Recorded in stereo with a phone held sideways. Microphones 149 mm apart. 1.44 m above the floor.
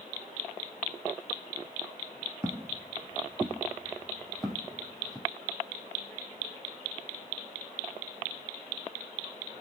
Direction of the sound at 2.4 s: 20° right (ahead or behind).